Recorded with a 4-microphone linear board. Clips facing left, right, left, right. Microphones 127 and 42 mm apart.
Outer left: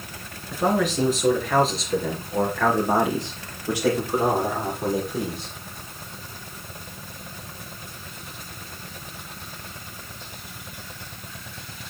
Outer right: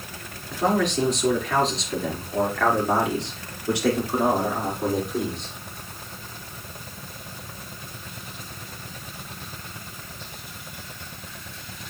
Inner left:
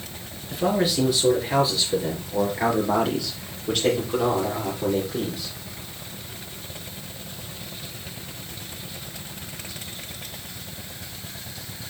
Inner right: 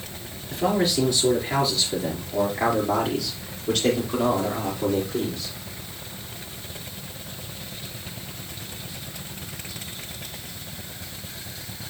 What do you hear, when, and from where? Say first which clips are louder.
0.5 s a man speaking: even, even; 5° left (ahead or behind), 3 m